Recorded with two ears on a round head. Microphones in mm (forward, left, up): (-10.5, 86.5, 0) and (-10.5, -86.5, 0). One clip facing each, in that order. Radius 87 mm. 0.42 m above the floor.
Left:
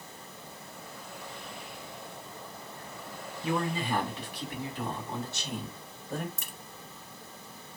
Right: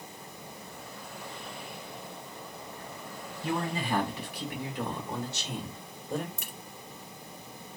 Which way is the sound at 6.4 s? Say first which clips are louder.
Right 2 dB; 75° left (ahead or behind).